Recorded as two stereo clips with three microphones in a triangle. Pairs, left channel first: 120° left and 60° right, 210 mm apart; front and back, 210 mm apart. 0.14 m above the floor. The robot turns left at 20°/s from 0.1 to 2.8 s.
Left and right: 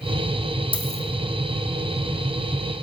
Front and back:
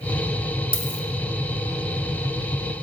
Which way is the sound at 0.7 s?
Straight ahead.